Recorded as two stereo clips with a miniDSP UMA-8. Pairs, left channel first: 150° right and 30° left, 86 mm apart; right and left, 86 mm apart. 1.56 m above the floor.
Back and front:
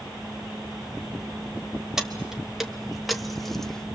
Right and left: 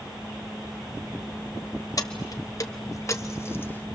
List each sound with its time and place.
2.0 s keys jangling: 55° right, 1.5 m; by 3.9 s 80° right, 0.8 m